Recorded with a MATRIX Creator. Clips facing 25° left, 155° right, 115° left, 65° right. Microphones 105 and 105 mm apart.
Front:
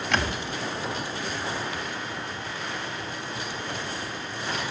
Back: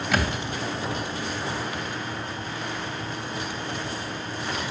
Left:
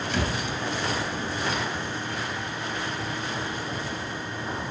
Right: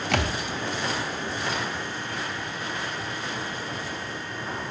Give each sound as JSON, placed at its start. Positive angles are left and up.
{"t": 0.1, "sound": "a thud", "azimuth_deg": -75, "distance_m": 2.0}